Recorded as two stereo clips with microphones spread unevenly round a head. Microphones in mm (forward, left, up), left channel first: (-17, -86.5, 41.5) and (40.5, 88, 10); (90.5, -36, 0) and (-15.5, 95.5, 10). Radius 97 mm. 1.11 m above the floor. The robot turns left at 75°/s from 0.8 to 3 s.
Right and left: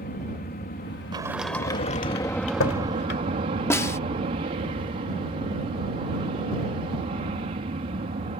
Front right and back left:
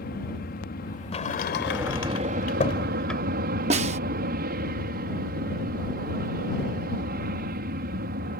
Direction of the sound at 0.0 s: 75° right.